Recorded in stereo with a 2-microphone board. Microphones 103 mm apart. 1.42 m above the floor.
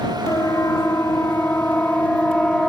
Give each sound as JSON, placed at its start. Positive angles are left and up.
{"t": 0.3, "sound": "a siren", "side_deg": 30}